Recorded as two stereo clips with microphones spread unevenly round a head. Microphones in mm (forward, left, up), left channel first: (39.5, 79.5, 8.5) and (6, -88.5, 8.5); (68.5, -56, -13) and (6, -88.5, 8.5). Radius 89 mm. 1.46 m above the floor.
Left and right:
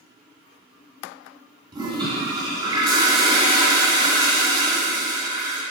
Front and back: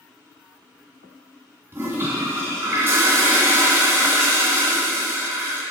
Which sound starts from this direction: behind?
A toilet flushing, at 1.7 s.